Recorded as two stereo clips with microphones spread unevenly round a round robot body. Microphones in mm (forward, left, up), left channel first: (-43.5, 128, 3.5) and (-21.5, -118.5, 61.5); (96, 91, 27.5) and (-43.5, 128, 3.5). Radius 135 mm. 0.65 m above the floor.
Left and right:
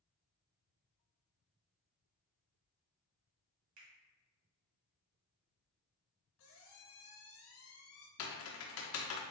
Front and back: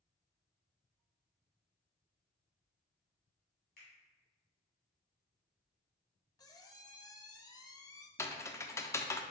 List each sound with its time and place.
3.8 s a finger snap: 55° right, 1.7 m
6.4 s a squeak: 45° left, 0.6 m
8.2 s typing on a keyboard: 65° left, 0.6 m